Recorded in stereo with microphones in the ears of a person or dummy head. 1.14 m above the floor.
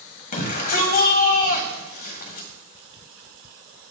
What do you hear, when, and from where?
0.3 s a shout: 45° left (ahead or behind), 1.0 m